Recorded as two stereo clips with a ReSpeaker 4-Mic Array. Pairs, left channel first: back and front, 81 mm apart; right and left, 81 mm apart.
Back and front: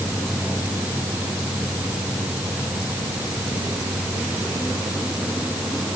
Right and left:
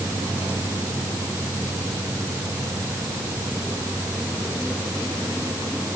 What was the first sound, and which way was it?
Only background noise.